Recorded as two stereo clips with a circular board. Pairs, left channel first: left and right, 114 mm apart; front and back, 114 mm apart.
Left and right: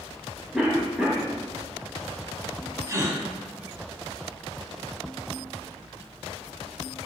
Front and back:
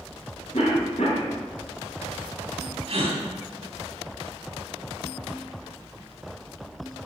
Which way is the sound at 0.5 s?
5° right.